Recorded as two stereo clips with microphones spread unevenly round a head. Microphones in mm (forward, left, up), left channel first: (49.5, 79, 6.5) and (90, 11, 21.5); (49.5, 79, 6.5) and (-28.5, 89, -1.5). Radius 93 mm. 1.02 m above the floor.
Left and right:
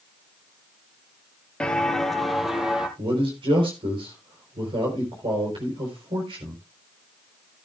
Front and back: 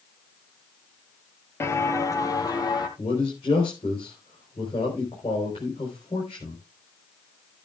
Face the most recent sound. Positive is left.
turn(degrees=-55)